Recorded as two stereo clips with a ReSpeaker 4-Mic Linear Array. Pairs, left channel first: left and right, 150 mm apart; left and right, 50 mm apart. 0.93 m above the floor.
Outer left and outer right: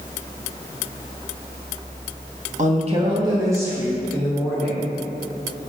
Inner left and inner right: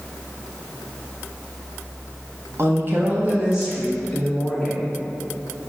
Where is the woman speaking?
50° right (ahead or behind), 0.8 m; by 4.9 s 5° left (ahead or behind), 1.8 m.